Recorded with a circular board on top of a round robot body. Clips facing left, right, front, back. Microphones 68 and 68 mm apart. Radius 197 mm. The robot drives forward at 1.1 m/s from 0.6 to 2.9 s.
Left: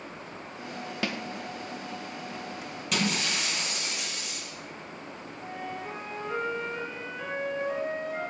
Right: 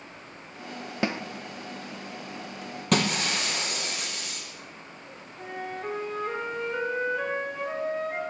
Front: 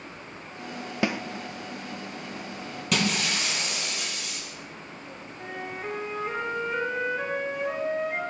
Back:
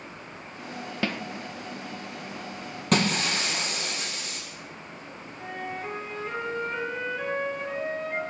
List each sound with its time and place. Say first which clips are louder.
1.0 s a snare drum: right 4 dB, front 3 dB; 60° right, 1.0 m; by 1.2 s 85° right, 1.0 m
2.9 s breaking glass: right 4 dB, back 2 dB; 130° right, 4.5 m
5.4 s a flute: right 3 dB, back 1 dB; 80° right, 6 m